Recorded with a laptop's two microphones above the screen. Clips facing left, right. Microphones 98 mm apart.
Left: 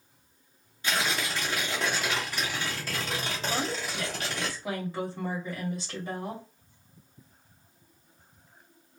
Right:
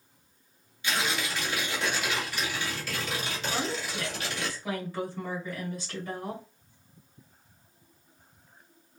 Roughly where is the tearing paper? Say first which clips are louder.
Left 1 dB; left.